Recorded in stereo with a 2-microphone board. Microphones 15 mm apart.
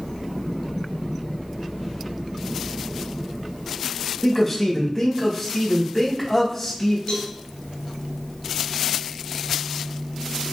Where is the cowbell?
75° left (ahead or behind), 4.5 m.